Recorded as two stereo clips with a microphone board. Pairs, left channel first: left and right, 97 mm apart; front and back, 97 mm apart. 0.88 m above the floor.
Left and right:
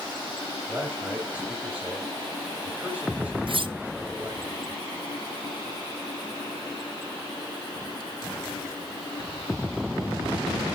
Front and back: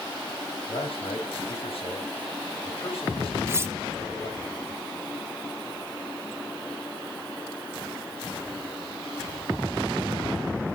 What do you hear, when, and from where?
0.7 s a man speaking: 15° right, 4.5 m
3.5 s cutlery clinking: 115° right, 0.6 m